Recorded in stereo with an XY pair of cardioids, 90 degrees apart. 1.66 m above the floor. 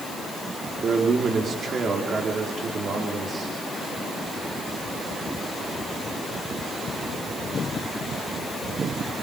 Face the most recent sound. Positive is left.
turn(degrees=-50)